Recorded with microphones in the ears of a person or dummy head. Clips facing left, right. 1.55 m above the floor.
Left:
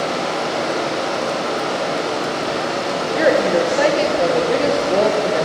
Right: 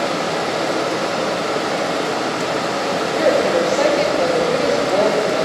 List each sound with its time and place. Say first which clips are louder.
0.0 s running water: right 1 dB; 55° right (ahead or behind), 1.9 m
3.1 s a woman speaking: left 1 dB; 10° left (ahead or behind), 0.9 m